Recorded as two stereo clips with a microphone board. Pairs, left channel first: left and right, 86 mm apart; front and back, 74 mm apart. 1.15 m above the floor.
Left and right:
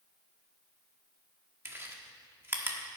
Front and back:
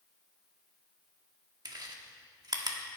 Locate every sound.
1.6 s chewing: 155° right, 1.4 m